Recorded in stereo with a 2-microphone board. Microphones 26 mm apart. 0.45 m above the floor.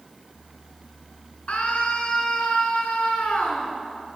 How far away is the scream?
About 6 m.